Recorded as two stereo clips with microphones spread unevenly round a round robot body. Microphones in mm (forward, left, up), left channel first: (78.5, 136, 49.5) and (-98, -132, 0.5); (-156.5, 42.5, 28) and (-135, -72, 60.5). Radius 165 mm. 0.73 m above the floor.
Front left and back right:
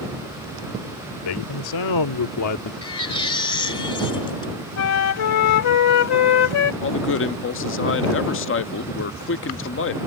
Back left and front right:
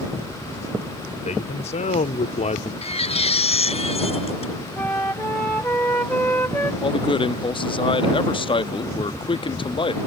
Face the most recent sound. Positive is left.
turn(degrees=110)